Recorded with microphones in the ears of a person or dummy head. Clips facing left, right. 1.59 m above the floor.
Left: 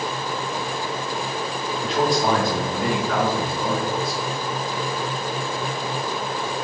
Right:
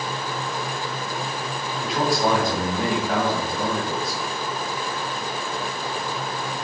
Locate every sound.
1.8 s a man speaking: 10° right (ahead or behind), 1.6 m; by 4.2 s 75° right (ahead or behind), 1.3 m